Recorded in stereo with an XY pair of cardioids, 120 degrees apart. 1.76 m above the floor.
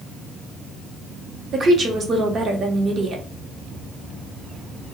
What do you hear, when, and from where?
1.5 s a woman speaking: 40° right, 0.8 m